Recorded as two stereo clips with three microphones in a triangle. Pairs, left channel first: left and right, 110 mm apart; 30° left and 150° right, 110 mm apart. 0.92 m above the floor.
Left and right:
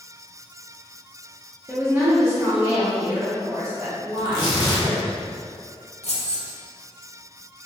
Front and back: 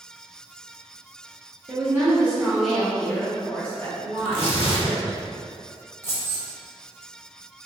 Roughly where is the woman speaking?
Behind right.